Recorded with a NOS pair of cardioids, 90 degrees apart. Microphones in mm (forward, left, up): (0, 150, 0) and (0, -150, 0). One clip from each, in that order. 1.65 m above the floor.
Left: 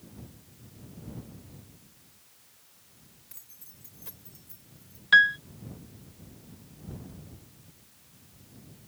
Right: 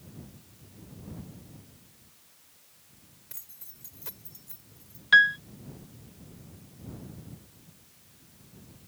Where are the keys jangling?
40° right.